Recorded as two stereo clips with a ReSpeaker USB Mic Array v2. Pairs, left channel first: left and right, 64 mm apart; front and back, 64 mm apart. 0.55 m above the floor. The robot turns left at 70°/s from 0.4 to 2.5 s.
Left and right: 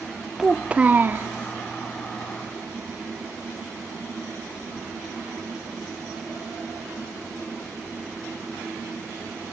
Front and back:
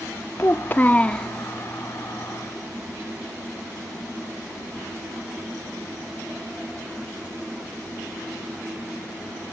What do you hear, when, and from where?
0.4 s a child speaking: 10° right, 0.6 m; by 1.3 s 75° right, 0.6 m